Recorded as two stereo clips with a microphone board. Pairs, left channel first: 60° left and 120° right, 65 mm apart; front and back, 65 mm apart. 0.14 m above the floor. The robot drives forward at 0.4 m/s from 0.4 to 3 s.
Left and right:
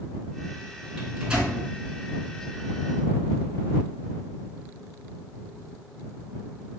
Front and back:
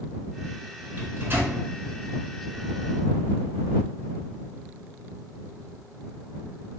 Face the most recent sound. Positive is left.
turn(degrees=180)